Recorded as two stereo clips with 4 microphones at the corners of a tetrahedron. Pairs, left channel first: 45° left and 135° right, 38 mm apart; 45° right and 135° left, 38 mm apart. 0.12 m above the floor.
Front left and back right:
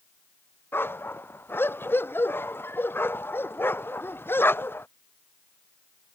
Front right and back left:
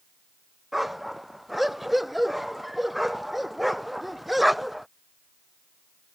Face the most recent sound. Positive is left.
turn(degrees=50)